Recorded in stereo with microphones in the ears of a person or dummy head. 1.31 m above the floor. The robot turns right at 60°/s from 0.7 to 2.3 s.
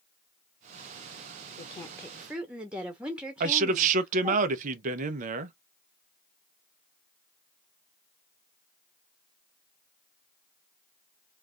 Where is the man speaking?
40° right (ahead or behind), 0.7 m.